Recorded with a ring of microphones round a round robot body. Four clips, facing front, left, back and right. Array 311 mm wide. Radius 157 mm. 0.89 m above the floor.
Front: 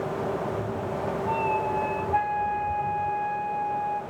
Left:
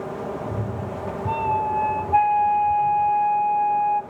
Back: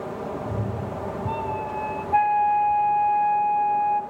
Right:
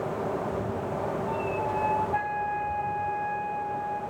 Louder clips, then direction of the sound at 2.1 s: Left 11 dB, back 9 dB; 130° left.